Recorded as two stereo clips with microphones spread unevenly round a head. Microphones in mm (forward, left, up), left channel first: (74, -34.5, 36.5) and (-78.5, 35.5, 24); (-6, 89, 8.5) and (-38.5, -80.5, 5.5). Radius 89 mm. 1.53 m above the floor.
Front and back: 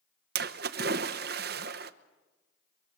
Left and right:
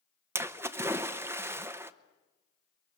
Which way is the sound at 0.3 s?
175° right.